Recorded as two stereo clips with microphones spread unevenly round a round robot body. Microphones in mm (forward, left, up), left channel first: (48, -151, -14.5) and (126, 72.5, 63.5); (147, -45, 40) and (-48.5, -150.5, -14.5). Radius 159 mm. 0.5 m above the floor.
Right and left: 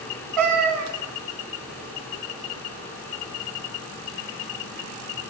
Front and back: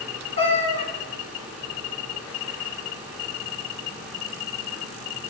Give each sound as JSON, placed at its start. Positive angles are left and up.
{"t": 0.4, "sound": "a cat meowing", "azimuth_deg": 100, "distance_m": 1.6}